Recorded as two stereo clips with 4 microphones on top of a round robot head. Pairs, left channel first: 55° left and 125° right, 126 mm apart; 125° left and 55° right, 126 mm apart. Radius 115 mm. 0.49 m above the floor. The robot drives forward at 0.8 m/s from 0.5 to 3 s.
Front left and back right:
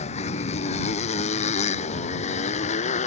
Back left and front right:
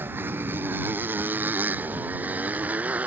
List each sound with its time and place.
0.0 s a motorcycle: 20° left; by 3.1 s 25° left